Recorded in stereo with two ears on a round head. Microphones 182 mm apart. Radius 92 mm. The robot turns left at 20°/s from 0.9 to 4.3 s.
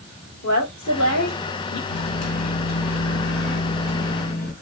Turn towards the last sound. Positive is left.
turn(degrees=45)